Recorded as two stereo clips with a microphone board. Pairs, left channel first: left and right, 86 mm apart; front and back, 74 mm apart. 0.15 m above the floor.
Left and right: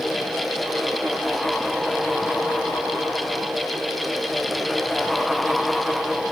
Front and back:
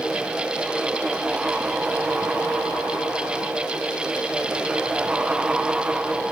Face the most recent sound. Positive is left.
No sound to turn to.